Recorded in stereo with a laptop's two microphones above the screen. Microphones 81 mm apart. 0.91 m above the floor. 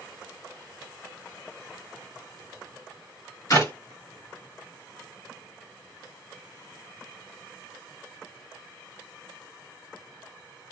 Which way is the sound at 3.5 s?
40° left (ahead or behind).